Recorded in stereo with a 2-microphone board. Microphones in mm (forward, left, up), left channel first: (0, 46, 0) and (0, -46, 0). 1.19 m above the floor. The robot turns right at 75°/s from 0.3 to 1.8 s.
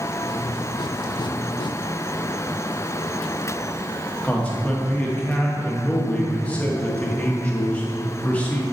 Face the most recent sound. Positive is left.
turn(degrees=15)  # may be behind; listen again after turning